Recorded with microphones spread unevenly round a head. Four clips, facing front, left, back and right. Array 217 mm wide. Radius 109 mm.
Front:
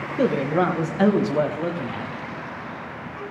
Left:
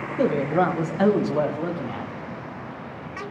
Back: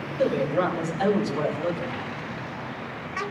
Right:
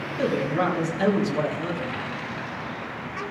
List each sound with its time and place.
0.2 s a man speaking: 20° left, 1.5 m